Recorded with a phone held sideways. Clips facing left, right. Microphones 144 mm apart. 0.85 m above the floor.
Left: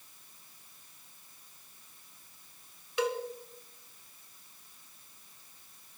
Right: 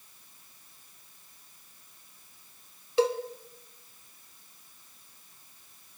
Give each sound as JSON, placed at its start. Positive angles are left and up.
{"t": 3.0, "sound": "a cowbell", "side_deg": -30, "distance_m": 2.0}